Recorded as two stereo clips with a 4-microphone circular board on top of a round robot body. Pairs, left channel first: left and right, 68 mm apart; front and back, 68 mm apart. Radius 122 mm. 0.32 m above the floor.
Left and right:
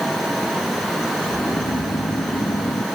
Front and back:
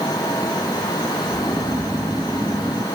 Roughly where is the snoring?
Left.